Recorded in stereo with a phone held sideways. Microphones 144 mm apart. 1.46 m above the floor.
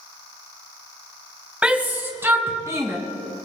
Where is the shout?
10° right (ahead or behind), 1.5 m; by 3.0 s 25° right (ahead or behind), 2.5 m.